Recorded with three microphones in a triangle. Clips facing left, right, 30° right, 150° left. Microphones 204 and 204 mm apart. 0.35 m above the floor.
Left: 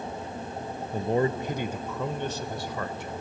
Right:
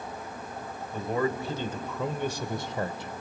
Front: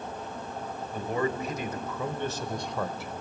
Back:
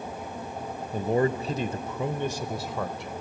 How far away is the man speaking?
About 1.3 m.